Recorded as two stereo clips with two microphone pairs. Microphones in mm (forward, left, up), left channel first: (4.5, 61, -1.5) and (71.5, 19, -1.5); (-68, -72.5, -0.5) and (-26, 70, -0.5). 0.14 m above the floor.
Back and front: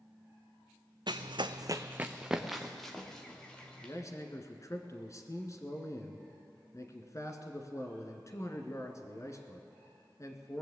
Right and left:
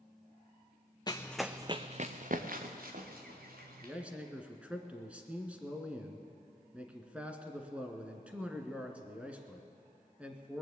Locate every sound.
1.1 s running footsteps: 45° right, 0.8 m; by 3.9 s 70° left, 3 m
3.8 s a man speaking: 155° left, 1.4 m